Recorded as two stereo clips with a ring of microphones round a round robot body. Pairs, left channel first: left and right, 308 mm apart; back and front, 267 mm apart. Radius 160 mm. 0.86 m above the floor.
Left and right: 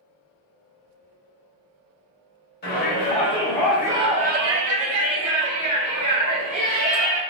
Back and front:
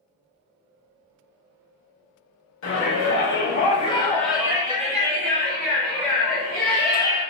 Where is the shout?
145° left, 1.0 m; by 7.2 s 50° right, 2 m.